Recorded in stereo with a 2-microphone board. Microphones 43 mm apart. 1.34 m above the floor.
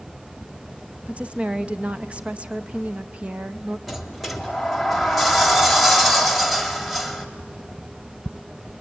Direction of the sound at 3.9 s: Centre (ahead or behind).